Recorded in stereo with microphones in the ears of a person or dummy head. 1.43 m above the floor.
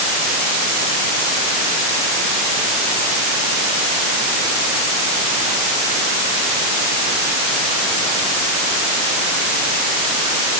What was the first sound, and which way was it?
Only background noise.